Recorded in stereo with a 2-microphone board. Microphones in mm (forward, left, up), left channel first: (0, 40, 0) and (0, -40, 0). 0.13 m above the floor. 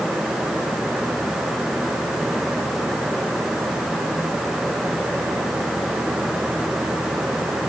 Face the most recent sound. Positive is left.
No sound to turn to.